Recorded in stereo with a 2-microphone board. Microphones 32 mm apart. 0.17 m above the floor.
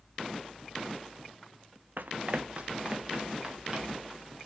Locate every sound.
2.0 s running footsteps: 65° right (ahead or behind), 0.6 m; by 4.1 s 20° right (ahead or behind), 3.5 m